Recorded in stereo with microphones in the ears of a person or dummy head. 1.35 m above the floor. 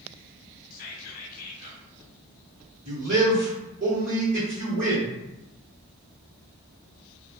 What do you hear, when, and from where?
0.7 s whispering: 45° left (ahead or behind), 0.8 m
2.9 s a man speaking: 40° right (ahead or behind), 1.2 m